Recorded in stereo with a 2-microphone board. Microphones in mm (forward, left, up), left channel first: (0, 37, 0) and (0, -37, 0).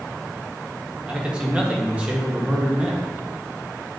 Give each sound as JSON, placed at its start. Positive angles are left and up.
{"t": 1.1, "sound": "a man speaking", "side_deg": -15, "distance_m": 1.7}